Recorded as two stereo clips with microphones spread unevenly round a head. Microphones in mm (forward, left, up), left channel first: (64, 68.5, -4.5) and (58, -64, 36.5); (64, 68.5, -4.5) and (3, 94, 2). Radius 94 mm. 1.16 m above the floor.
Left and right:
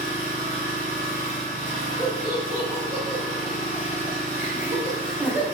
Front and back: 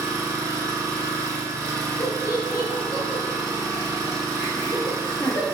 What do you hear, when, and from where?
0.0 s an engine running: 130° left, 2 m
2.0 s laughter: 15° right, 2.0 m